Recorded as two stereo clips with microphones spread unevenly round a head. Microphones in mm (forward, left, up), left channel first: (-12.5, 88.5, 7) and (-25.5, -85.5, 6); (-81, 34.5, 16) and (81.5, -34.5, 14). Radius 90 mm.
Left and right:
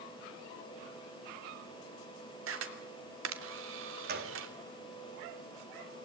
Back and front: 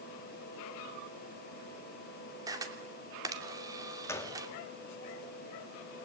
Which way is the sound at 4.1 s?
130° right.